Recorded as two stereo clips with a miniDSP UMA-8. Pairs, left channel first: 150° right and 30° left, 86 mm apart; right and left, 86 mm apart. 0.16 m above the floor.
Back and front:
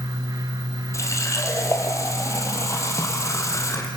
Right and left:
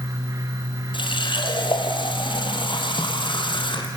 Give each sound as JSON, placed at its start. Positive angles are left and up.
{"t": 0.9, "sound": "a running tap", "azimuth_deg": -100, "distance_m": 3.0}